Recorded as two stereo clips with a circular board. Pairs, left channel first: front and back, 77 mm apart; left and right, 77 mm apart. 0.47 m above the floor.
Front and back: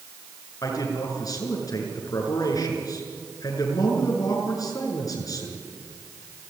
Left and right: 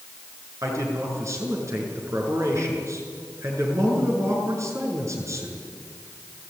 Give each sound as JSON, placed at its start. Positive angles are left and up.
{"t": 0.6, "sound": "a man speaking", "azimuth_deg": -40, "distance_m": 6.5}